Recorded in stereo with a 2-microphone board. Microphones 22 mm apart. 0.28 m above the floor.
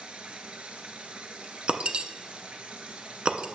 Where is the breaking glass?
60° right (ahead or behind), 0.5 m.